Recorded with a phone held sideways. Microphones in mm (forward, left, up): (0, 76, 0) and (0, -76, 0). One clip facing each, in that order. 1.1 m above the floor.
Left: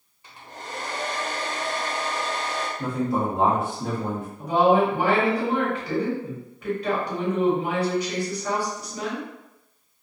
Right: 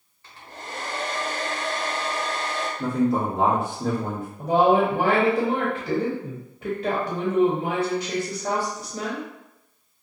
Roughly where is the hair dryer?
Centre.